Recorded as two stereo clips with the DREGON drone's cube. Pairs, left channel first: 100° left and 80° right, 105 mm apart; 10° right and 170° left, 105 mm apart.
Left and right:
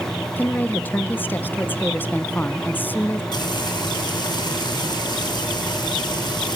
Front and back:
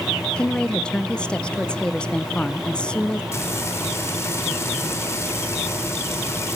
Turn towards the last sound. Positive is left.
turn(degrees=55)